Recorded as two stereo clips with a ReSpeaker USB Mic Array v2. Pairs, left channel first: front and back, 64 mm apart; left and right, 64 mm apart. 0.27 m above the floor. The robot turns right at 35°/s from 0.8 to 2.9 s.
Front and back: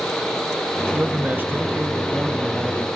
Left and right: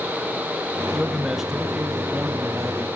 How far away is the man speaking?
About 1.0 m.